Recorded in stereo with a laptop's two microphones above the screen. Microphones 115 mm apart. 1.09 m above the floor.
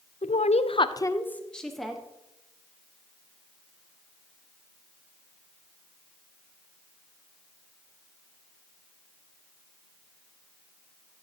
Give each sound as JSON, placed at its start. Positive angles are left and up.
{"t": 0.2, "sound": "a woman speaking", "side_deg": 70, "distance_m": 0.6}